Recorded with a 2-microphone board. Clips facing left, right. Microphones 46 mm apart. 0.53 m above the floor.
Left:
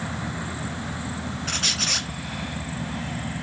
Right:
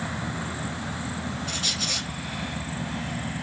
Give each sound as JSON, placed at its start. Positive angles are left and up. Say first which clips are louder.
{"t": 1.5, "sound": "a squeak", "louder": "left 6 dB", "side_deg": 70, "distance_m": 0.9}